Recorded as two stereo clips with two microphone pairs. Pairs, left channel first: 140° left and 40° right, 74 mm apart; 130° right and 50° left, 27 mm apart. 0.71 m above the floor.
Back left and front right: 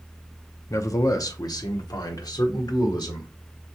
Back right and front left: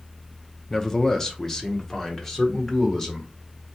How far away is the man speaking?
About 0.7 m.